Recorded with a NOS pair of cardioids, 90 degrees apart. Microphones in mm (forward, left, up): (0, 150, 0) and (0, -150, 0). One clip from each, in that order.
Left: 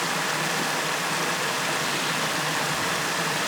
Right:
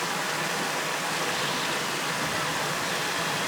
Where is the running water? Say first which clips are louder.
Left 3 dB; 25° left, 0.9 m.